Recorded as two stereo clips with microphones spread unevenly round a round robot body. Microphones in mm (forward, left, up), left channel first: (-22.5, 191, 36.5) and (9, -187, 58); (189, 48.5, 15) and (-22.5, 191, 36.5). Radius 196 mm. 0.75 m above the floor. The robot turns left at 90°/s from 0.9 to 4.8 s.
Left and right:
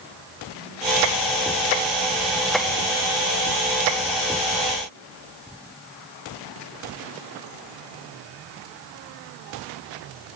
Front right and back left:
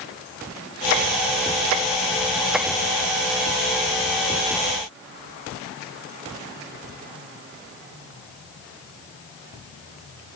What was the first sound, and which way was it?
Only background noise.